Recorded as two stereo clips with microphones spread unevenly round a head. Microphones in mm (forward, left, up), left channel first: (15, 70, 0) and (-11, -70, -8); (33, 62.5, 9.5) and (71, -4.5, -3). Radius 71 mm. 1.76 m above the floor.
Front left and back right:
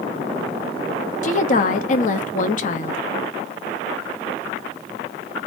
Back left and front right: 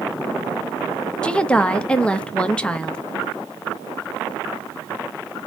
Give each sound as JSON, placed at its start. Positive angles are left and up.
{"t": 1.2, "sound": "a woman speaking", "azimuth_deg": 45, "distance_m": 0.8}